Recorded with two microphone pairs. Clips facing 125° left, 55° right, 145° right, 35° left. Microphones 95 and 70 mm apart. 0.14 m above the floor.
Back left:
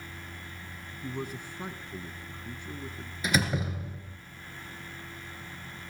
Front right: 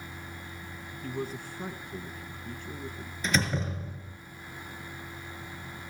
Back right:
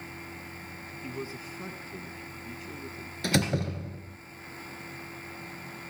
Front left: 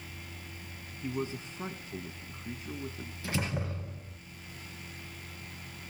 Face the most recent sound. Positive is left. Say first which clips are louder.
# back left 1 dB, back right 7 dB
turn(degrees=-160)